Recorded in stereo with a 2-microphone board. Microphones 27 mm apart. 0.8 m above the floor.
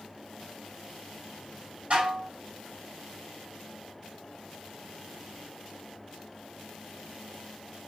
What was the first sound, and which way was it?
Dishes clattering, 50° right (ahead or behind).